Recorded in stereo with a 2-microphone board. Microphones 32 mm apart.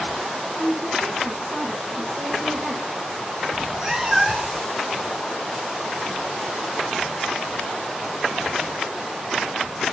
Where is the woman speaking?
50° right (ahead or behind), 4.5 m.